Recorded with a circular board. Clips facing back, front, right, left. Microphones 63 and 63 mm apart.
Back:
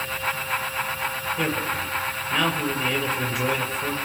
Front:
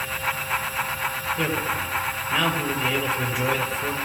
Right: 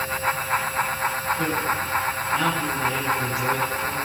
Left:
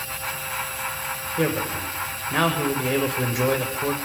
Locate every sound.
1.4 s a man speaking: 90° left, 5.5 m